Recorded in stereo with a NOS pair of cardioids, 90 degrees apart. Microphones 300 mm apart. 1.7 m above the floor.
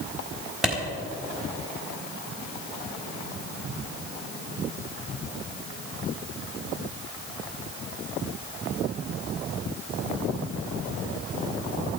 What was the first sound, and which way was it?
A clap, straight ahead.